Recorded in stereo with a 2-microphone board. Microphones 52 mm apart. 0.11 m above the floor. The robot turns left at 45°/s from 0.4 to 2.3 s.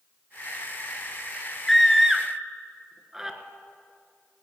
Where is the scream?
5° left (ahead or behind), 1.3 m; by 3.4 s 10° right (ahead or behind), 1.3 m.